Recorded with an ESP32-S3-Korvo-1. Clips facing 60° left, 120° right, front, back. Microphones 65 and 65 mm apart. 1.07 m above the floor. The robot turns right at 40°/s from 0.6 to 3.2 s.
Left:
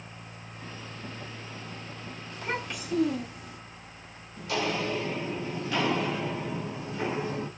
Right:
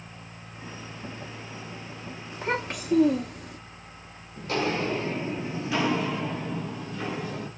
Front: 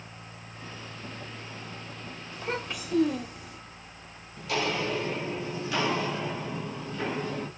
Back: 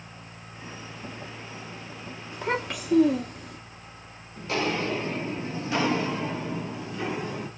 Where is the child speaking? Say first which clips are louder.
Right 4 dB, back 5 dB; straight behind, 0.9 m; by 3.6 s 145° right, 0.9 m.